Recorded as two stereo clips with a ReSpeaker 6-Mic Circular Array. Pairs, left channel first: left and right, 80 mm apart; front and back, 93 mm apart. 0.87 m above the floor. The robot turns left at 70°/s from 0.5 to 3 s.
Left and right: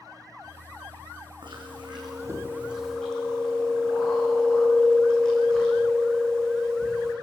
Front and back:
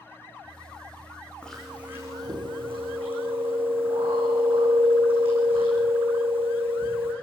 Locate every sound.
1.4 s chewing: 80° right, 9 m; by 7.1 s 170° left, 9 m